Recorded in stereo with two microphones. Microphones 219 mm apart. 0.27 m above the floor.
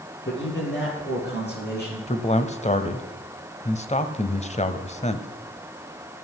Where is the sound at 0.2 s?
55° left (ahead or behind), 7.5 m; by 2.0 s 45° left (ahead or behind), 8 m.